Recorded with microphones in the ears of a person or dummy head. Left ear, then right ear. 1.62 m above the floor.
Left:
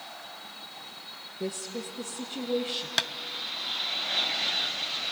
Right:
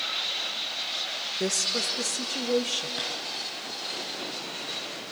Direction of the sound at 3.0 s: 60° left (ahead or behind).